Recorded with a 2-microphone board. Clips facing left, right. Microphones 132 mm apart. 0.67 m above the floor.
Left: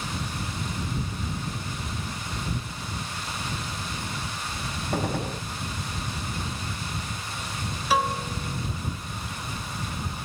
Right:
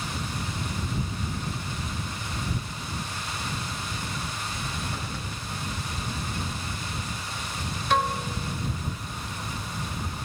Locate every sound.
4.9 s a gunshot: 55° left (ahead or behind)
7.9 s a piano: 5° left (ahead or behind)